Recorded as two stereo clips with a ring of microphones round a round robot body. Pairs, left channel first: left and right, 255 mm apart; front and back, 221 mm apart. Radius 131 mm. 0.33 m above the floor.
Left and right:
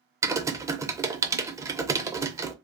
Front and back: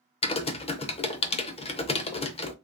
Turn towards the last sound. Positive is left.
turn(degrees=-25)